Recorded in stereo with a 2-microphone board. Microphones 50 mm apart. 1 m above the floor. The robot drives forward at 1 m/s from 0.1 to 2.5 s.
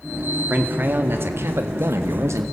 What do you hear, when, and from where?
0.5 s a man speaking: 40° right (ahead or behind), 2.5 m; by 2.4 s 70° right (ahead or behind), 1.6 m